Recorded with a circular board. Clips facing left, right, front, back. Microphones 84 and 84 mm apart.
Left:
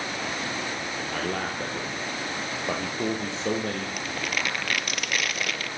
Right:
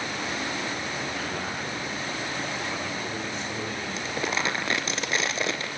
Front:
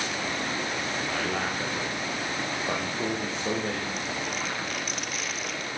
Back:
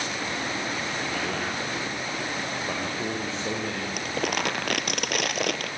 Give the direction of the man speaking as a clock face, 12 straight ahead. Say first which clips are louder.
Left 2 dB, even; 9 o'clock.